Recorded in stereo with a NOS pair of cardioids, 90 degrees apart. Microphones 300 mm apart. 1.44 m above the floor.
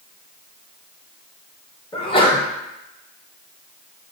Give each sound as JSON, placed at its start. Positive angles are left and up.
{"t": 1.9, "sound": "a sneeze", "azimuth_deg": 20, "distance_m": 0.8}